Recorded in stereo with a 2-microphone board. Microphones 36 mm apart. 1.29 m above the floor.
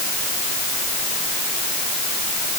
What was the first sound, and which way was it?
Only background noise.